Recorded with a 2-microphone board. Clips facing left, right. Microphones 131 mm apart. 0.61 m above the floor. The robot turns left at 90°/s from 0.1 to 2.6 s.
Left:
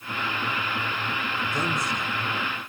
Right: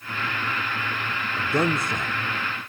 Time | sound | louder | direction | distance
1.4 | a man speaking | right 7 dB | 70° right | 1.1 m